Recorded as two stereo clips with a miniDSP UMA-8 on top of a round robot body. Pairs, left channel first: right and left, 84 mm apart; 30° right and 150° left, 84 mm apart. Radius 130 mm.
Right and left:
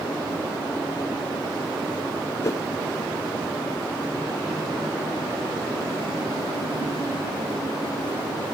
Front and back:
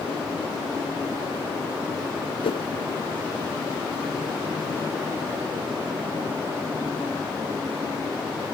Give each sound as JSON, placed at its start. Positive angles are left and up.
{"t": 2.4, "sound": "a whoosh", "azimuth_deg": -35}